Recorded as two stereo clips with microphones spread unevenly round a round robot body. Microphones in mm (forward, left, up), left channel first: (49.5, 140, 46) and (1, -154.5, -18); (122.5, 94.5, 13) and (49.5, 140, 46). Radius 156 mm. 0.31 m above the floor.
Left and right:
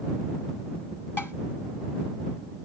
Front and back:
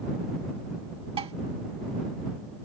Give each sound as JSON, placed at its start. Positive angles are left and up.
{"t": 1.2, "sound": "dishes clattering", "azimuth_deg": 165}